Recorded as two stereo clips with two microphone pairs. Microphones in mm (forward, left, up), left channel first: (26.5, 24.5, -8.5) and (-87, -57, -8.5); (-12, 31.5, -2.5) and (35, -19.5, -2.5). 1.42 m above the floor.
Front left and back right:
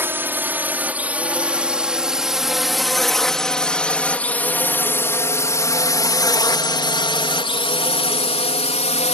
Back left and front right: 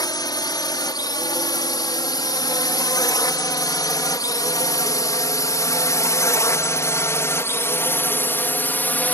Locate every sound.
0.0 s a drone: 140° left; by 9.2 s 70° left